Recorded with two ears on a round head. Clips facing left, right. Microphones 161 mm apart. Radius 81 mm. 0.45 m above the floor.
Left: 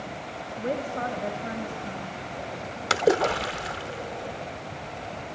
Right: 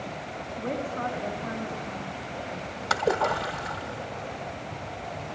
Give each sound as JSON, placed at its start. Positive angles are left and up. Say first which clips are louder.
{"t": 0.6, "sound": "a woman speaking", "louder": "left 2 dB", "side_deg": 50, "distance_m": 2.5}
{"t": 2.9, "sound": "a splash", "louder": "left 3 dB", "side_deg": 35, "distance_m": 0.7}